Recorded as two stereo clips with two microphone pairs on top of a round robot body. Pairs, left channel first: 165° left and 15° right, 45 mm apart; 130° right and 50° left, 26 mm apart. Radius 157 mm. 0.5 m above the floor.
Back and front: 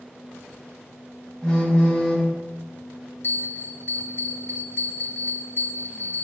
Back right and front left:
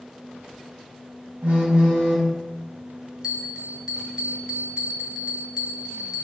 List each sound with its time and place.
1.4 s a phone buzzing: 70° left, 4 m
3.2 s a bell: 120° left, 0.9 m